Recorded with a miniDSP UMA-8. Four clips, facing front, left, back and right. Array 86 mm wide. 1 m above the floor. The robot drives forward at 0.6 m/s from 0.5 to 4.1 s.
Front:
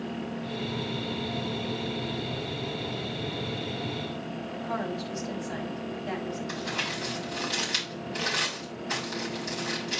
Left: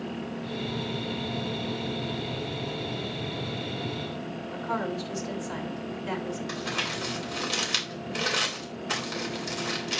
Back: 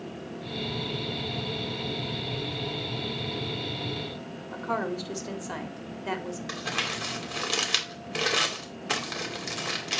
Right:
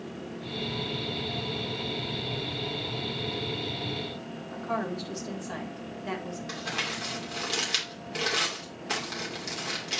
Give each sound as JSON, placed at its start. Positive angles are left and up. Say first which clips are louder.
{"t": 4.5, "sound": "a woman speaking", "louder": "left 1 dB, back 3 dB", "azimuth_deg": -170, "distance_m": 1.9}
{"t": 6.5, "sound": "crumpling", "louder": "left 2 dB, even", "azimuth_deg": -175, "distance_m": 2.5}